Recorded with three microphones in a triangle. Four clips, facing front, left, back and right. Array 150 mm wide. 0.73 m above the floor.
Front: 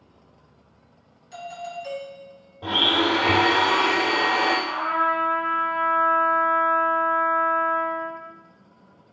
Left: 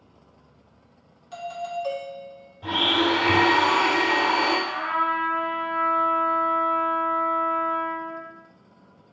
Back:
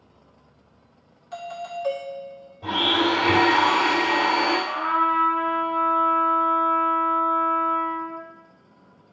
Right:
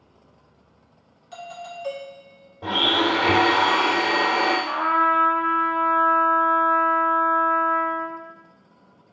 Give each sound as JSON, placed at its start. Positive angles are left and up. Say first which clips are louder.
{"t": 1.3, "sound": "a doorbell", "louder": "left 5 dB, back 2 dB", "azimuth_deg": 180, "distance_m": 1.5}
{"t": 2.6, "sound": "a blender", "louder": "right 1 dB, even", "azimuth_deg": -70, "distance_m": 2.0}
{"t": 4.7, "sound": "a trumpet", "louder": "right 5 dB, back 1 dB", "azimuth_deg": -100, "distance_m": 0.8}